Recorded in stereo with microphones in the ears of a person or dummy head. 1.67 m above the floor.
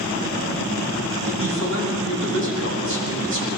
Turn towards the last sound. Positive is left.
turn(degrees=-75)  # may be behind; listen again after turning